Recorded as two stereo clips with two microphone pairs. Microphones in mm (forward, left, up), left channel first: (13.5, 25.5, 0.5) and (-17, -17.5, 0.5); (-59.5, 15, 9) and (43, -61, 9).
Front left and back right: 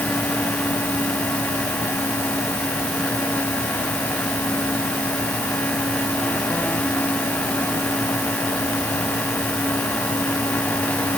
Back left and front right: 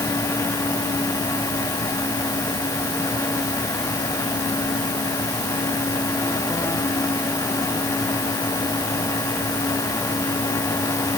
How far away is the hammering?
No hammering in this recording.